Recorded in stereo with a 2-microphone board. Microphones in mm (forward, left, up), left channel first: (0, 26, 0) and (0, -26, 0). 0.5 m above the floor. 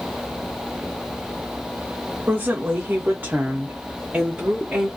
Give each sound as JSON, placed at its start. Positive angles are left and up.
{"t": 2.3, "sound": "a woman speaking", "side_deg": -30, "distance_m": 1.3}